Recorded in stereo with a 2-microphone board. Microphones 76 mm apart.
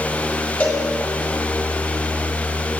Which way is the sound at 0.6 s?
20° left (ahead or behind).